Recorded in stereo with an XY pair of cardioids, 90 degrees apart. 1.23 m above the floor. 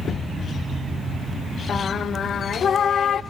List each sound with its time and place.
1.7 s singing: 55° left, 0.7 m